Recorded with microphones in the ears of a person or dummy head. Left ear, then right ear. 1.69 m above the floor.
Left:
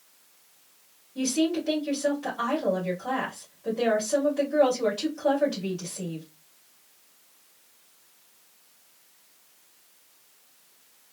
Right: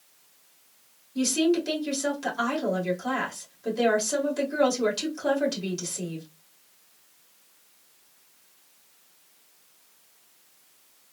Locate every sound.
1.1 s a woman speaking: 80° right, 2 m